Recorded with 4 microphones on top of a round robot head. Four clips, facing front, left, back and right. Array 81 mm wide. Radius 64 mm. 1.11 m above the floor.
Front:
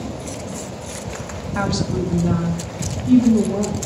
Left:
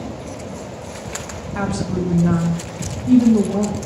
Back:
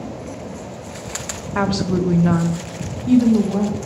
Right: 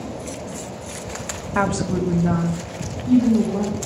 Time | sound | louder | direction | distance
1.6 | a woman speaking | right 2 dB, back 3 dB | 125° right | 0.6 m